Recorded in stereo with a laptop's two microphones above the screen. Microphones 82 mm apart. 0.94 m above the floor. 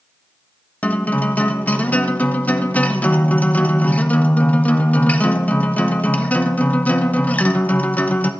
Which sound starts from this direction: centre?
A guitar, at 0.8 s.